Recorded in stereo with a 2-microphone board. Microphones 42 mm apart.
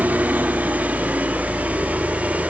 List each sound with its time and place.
0.0 s a helicopter: 45° right (ahead or behind); by 2.5 s 40° right (ahead or behind)